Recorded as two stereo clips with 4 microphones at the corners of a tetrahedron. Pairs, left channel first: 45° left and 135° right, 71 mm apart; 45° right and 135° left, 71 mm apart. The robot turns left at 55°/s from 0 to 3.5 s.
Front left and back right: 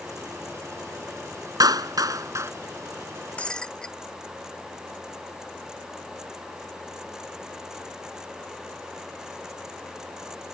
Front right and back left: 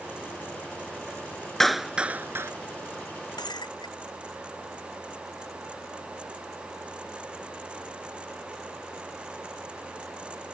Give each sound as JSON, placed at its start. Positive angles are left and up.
{"t": 1.6, "sound": "a clap", "azimuth_deg": -130}
{"t": 3.4, "sound": "breaking glass", "azimuth_deg": -25}